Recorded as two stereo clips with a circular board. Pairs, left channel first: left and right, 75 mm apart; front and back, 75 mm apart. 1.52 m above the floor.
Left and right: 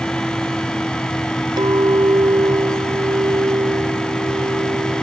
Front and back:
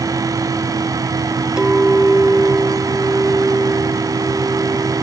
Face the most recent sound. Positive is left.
turn(degrees=-100)